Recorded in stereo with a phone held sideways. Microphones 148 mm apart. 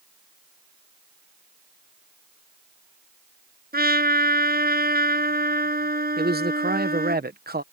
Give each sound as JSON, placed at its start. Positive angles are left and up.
{"t": 3.7, "sound": "a trumpet", "side_deg": -75}
{"t": 6.2, "sound": "a man speaking", "side_deg": -80}